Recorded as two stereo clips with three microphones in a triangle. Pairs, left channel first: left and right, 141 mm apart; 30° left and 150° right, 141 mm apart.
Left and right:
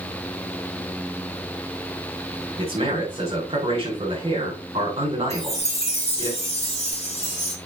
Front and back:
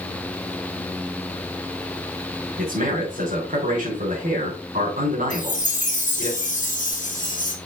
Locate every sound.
2.6 s a man speaking: 135° right, 3.5 m
5.3 s a chime: 55° left, 1.5 m